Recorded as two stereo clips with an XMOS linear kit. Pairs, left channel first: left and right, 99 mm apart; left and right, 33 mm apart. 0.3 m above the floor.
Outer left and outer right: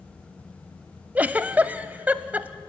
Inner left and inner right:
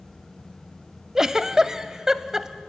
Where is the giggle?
15° right (ahead or behind), 0.6 m.